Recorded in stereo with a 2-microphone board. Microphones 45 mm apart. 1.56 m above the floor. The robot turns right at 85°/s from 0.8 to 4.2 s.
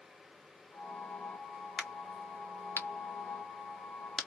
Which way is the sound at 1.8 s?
25° right (ahead or behind).